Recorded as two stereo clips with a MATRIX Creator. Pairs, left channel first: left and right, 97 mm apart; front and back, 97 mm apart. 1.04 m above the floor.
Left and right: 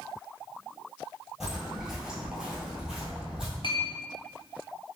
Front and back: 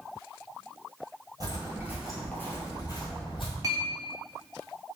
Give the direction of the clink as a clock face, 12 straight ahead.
8 o'clock.